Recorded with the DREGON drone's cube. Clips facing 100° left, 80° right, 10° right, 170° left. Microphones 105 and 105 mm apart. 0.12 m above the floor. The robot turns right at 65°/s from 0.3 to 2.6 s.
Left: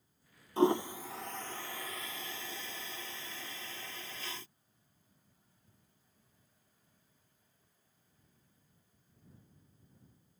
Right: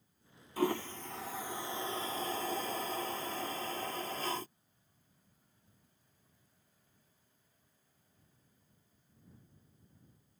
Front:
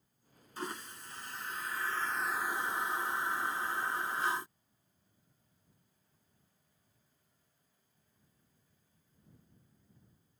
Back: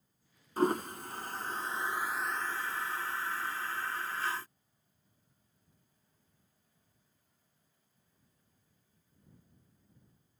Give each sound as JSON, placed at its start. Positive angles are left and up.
{"t": 0.6, "sound": "a toilet flushing", "azimuth_deg": 150}